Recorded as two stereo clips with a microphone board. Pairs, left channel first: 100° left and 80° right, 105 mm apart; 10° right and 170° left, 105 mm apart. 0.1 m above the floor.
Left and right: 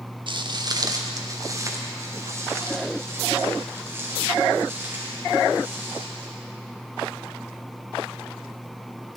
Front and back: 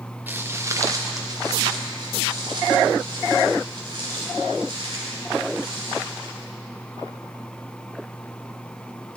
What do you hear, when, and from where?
0.3 s footsteps: 115° right, 1.2 m; by 6.3 s 150° right, 7.5 m